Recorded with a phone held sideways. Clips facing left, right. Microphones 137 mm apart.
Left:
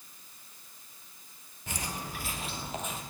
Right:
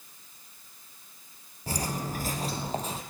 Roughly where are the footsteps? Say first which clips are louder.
Right 6 dB; right.